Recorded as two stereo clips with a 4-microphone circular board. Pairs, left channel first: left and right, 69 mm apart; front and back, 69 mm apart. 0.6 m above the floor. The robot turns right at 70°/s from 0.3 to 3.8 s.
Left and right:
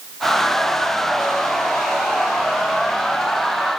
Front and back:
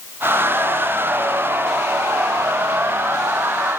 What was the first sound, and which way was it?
Only background noise.